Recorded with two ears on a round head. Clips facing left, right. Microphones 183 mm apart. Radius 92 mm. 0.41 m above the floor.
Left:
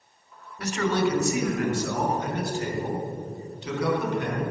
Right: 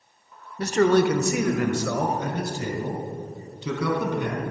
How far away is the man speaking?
About 0.9 m.